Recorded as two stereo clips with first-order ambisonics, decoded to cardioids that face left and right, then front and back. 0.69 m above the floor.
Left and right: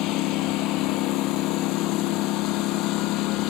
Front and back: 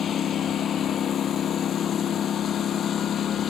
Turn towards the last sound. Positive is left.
turn(degrees=60)